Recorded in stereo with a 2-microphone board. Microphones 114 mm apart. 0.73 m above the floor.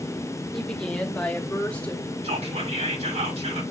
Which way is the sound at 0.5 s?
5° left (ahead or behind).